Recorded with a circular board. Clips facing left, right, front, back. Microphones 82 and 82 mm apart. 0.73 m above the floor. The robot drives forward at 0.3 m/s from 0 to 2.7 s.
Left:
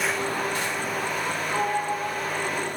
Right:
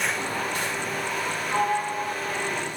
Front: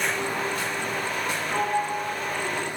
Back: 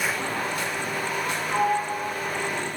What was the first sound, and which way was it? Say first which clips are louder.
A sliding door: right 2 dB, back 2 dB; 140° right.